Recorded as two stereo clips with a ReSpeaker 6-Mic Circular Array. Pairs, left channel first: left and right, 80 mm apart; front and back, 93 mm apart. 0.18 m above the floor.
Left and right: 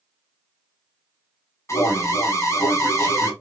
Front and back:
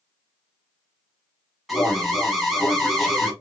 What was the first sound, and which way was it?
An alarm, 90° left.